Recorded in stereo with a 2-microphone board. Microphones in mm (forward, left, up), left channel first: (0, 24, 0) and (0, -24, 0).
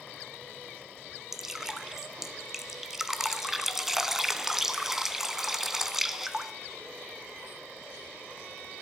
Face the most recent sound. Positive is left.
turn(degrees=-10)  # may be behind; listen again after turning